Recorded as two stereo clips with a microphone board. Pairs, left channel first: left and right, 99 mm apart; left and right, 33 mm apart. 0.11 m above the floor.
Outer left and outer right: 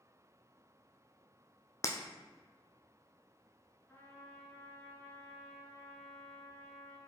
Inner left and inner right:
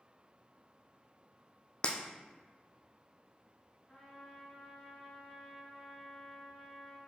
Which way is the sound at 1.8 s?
30° left (ahead or behind).